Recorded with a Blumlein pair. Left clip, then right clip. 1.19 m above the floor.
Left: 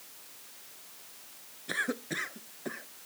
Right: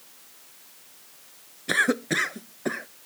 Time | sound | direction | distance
1.7 | a cough | 60° right | ?